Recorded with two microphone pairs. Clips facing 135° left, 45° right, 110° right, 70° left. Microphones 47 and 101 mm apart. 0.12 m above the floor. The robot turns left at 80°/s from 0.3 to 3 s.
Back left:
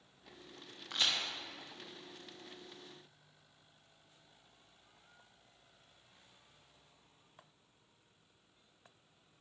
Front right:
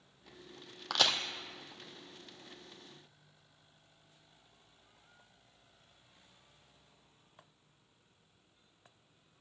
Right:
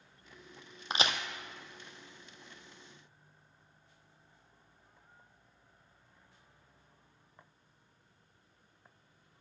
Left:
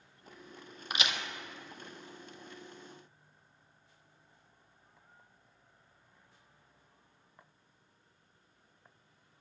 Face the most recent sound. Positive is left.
turn(degrees=145)